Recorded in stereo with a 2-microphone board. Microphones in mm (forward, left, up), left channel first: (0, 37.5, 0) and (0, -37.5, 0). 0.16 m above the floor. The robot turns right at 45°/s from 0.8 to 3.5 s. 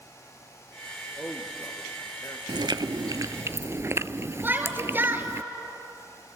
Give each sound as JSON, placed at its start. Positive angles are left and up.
{"t": 1.2, "sound": "a man speaking", "side_deg": 5, "distance_m": 3.5}
{"t": 2.5, "sound": "chewing", "azimuth_deg": -85, "distance_m": 0.5}
{"t": 4.4, "sound": "a shout", "side_deg": -25, "distance_m": 2.5}